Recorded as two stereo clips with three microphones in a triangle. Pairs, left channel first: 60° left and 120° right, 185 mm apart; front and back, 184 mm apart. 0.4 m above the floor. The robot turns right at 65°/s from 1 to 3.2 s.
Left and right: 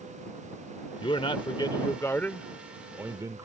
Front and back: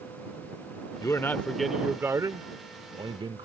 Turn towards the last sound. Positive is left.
turn(degrees=-170)